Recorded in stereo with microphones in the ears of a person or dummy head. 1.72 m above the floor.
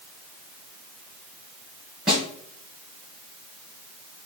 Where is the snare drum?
Centre (ahead or behind), 2 m.